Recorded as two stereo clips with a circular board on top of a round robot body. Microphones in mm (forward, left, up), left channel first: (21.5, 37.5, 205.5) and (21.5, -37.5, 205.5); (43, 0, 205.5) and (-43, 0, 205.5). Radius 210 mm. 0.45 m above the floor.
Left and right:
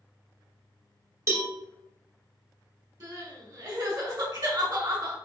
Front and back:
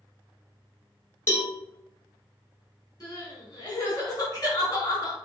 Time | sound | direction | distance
1.3 | a cowbell | 55° right | 1.5 m
3.0 | crying | 50° right | 1.8 m